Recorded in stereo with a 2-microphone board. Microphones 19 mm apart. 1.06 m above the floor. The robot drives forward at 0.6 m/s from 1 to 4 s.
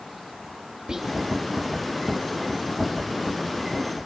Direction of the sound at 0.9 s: 35° right (ahead or behind).